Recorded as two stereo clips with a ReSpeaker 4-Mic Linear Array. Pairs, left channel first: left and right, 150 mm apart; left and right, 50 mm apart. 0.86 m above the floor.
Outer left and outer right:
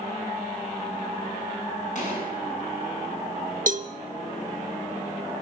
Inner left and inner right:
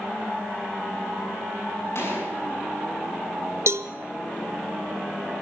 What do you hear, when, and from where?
1.9 s a gunshot: 55° left (ahead or behind), 8 m
3.7 s a cowbell: 60° right (ahead or behind), 0.9 m